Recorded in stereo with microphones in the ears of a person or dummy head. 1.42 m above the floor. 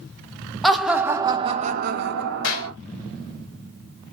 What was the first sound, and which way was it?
Laughter, centre (ahead or behind).